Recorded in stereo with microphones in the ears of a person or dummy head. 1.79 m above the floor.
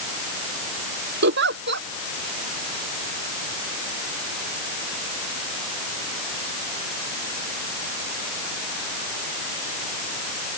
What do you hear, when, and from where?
1.2 s a giggle: 60° right (ahead or behind)